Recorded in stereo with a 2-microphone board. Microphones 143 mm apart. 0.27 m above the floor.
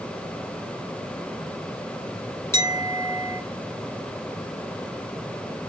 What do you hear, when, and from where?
2.5 s a clink: 20° left (ahead or behind), 2 m